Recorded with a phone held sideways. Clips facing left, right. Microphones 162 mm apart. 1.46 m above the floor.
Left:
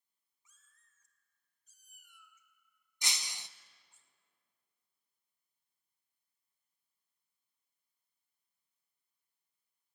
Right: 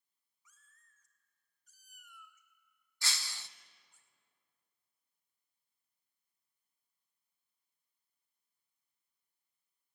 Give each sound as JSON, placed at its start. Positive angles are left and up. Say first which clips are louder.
{"t": 0.5, "sound": "a cat meowing", "louder": "right 4 dB", "side_deg": 25, "distance_m": 1.8}
{"t": 3.0, "sound": "breaking glass", "louder": "even", "side_deg": 20, "distance_m": 0.5}